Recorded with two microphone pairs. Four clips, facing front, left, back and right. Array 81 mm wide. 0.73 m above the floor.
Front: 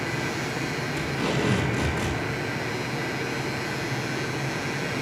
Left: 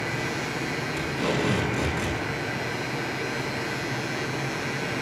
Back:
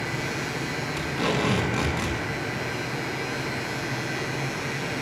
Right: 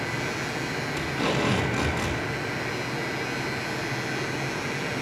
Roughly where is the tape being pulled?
Behind.